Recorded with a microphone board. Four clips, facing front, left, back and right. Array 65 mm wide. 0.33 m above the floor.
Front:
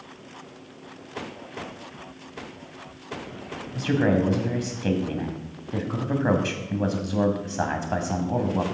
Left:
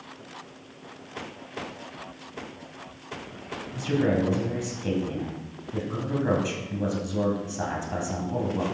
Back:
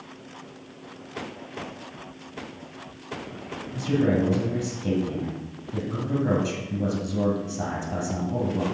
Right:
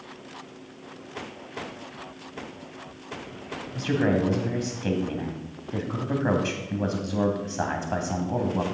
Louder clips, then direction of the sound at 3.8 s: Right 1 dB, front 1 dB; 20° right.